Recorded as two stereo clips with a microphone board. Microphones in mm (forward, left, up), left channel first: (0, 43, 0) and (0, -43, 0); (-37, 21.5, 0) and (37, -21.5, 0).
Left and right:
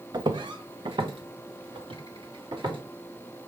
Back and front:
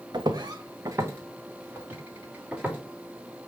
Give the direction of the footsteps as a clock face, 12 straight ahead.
2 o'clock.